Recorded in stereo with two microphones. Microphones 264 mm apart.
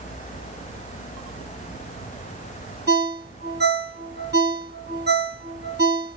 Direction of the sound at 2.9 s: 40° right (ahead or behind).